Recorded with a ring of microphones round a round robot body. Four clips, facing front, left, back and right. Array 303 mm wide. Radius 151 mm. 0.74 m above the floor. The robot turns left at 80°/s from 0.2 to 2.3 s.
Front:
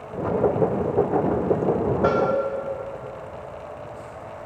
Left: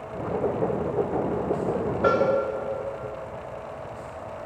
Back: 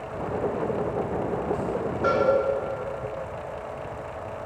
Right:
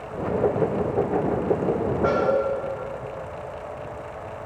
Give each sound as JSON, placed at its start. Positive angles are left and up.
{"t": 2.0, "sound": "a cowbell", "azimuth_deg": 80, "distance_m": 2.0}